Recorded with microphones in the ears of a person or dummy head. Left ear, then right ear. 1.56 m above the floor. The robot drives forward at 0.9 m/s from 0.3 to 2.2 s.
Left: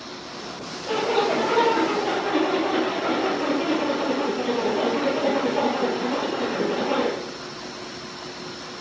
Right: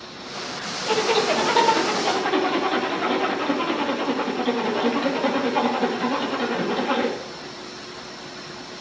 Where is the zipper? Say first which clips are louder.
Right 1 dB; 70° right (ahead or behind), 2 m; by 7.2 s 80° right, 2 m.